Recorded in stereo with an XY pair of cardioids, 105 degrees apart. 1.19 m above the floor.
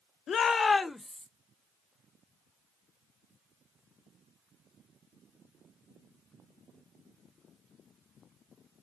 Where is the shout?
60° left, 0.7 m; by 1.3 s straight ahead, 1.0 m.